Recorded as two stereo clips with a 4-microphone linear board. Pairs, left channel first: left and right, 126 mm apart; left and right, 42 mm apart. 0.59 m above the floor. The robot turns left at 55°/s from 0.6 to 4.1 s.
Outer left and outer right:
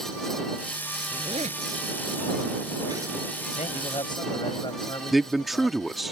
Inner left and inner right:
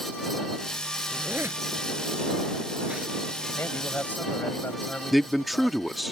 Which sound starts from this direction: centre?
A man speaking, at 5.1 s.